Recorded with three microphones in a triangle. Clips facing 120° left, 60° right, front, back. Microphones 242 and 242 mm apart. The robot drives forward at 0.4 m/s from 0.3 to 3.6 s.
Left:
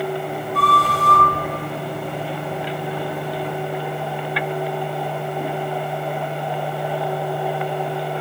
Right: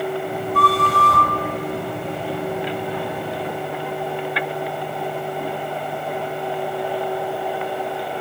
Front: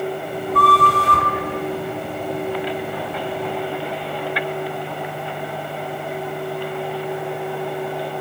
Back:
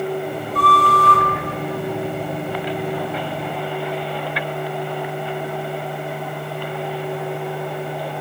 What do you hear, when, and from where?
0.5 s a flute: 25° right, 4 m